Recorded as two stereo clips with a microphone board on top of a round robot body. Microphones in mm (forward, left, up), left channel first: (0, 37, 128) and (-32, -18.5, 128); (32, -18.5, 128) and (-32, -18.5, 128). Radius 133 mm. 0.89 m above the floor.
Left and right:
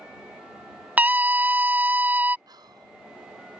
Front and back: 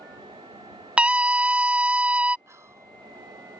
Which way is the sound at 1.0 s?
135° right.